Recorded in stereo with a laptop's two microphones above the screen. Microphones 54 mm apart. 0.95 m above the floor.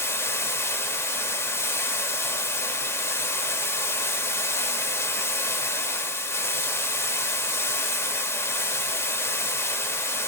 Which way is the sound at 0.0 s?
50° left (ahead or behind).